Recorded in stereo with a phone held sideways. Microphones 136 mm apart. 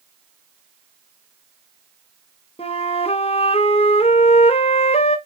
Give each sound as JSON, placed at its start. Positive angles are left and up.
{"t": 2.6, "sound": "a flute", "side_deg": 45, "distance_m": 0.9}